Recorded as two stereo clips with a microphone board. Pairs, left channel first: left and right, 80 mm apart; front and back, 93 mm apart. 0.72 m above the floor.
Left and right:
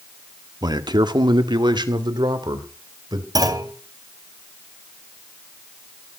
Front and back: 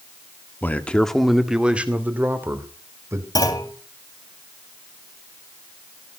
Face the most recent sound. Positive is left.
turn(degrees=-50)